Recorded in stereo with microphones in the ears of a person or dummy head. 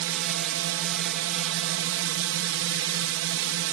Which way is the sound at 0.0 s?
75° right (ahead or behind).